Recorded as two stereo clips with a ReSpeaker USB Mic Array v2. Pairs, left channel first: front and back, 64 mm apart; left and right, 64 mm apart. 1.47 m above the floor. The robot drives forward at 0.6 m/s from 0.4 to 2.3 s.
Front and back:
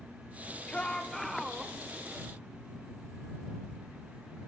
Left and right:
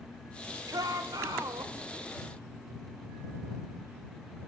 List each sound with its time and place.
0.7 s a shout: 70° right, 1.2 m; by 1.8 s 100° right, 1.2 m